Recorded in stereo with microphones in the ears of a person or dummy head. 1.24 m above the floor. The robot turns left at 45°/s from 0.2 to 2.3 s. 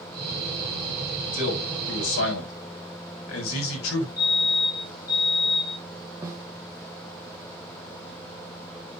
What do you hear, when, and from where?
1.3 s a man speaking: 140° left, 7 m; by 4.1 s 95° left, 7 m
4.2 s a fire alarm: 50° left (ahead or behind), 4 m
6.2 s a snare drum: 15° right (ahead or behind), 1.6 m